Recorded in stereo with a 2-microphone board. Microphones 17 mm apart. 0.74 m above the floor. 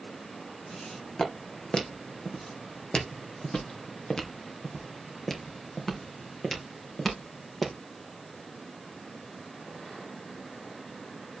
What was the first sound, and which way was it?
Footsteps, 65° left (ahead or behind).